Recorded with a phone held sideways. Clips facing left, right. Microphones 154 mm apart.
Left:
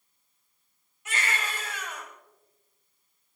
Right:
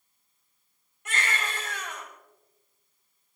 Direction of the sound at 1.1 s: 60° right (ahead or behind).